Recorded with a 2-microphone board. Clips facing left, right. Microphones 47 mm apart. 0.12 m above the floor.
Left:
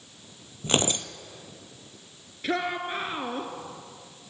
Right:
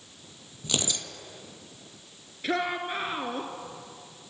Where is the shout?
Centre (ahead or behind), 1.5 m.